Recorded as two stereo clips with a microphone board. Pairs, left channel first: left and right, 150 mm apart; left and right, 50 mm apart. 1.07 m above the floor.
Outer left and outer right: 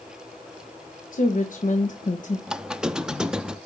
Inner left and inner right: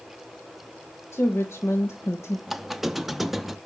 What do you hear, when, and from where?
1.1 s a woman speaking: 60° left (ahead or behind), 1.2 m
2.5 s a squeak: 5° right (ahead or behind), 0.5 m